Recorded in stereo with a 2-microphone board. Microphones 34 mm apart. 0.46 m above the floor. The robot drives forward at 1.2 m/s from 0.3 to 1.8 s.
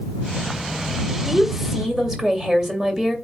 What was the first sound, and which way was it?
A woman speaking, 20° right (ahead or behind).